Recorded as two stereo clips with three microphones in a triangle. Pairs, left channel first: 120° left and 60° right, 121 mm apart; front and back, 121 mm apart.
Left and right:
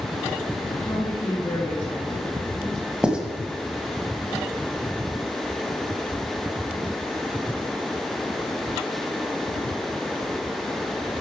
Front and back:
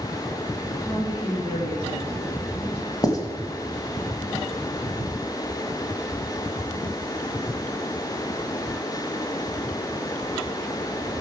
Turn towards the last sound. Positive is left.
turn(degrees=15)